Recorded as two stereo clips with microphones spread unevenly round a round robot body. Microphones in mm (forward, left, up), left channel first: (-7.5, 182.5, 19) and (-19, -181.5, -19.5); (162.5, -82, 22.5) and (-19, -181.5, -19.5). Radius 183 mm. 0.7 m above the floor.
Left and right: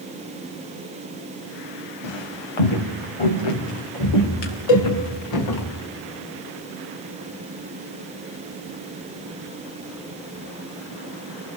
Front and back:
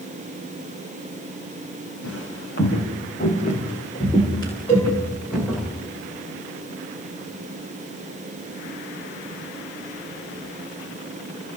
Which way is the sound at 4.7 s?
105° left.